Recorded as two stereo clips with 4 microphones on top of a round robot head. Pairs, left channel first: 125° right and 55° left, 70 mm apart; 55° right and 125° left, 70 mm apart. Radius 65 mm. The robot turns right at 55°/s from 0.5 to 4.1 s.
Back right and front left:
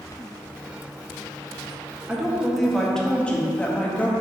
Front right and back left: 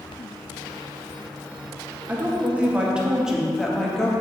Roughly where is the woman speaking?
Behind left.